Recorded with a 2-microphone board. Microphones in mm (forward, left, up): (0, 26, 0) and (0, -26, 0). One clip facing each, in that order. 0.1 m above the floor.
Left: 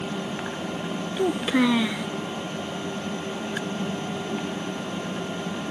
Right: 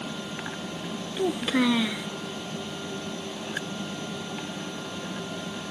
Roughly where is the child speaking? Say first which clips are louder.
Left 3 dB; centre.